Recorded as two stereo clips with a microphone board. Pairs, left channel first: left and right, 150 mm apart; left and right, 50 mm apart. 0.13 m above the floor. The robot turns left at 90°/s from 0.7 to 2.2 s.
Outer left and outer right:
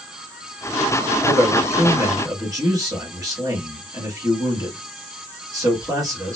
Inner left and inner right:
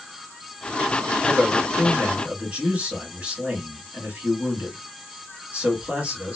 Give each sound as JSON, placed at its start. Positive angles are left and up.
{"t": 1.2, "sound": "a man speaking", "side_deg": -5, "distance_m": 1.8}